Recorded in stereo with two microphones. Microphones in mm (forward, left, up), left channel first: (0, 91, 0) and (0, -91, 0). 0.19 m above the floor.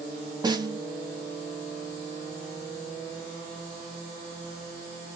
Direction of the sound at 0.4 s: 25° right (ahead or behind).